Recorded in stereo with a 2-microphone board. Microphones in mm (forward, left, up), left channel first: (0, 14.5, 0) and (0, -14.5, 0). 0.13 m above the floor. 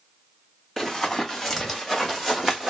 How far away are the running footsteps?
About 3 m.